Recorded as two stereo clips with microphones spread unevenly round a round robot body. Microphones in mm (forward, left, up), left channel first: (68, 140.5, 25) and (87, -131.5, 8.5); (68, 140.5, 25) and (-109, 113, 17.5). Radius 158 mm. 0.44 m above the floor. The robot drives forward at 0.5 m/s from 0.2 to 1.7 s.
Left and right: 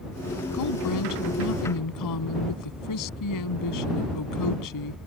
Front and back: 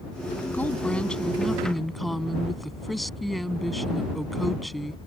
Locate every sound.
0.5 s a woman speaking: 90° left; by 5.0 s 100° left